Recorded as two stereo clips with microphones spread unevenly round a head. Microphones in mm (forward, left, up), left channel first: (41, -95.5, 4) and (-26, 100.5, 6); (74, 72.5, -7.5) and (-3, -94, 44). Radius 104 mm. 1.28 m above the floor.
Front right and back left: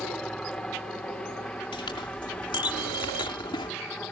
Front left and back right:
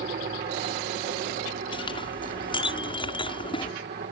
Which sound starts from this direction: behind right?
A helicopter, at 0.0 s.